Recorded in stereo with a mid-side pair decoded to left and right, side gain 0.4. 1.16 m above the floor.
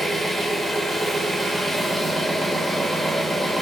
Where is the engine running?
25° right, 1.0 m.